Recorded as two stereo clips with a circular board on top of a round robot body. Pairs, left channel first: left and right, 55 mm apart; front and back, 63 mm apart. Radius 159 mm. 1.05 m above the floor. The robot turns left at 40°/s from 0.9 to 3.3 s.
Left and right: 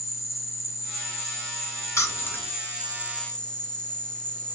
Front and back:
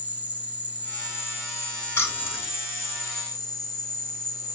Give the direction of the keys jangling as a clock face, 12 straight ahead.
10 o'clock.